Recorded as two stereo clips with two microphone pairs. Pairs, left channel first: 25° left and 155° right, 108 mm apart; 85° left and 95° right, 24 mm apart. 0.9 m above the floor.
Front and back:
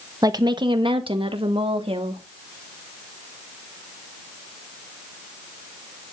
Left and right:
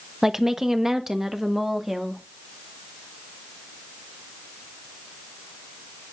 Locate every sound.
0.2 s a woman speaking: 155° right, 1.0 m; by 2.2 s 170° right, 2 m